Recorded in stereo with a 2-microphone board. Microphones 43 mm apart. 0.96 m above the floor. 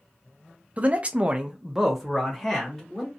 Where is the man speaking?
30° right (ahead or behind), 0.6 m; by 3.1 s 5° left (ahead or behind), 1.4 m.